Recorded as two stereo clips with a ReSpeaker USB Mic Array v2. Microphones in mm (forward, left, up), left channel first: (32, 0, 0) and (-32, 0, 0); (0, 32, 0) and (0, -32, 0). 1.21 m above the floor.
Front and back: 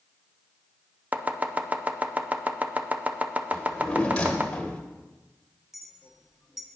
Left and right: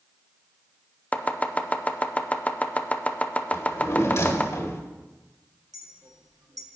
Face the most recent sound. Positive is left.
turn(degrees=-95)